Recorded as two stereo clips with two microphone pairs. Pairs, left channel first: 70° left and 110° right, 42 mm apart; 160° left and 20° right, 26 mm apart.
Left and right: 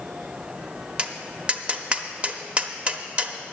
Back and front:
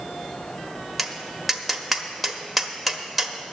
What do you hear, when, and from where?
1.0 s tapping: 105° right, 0.9 m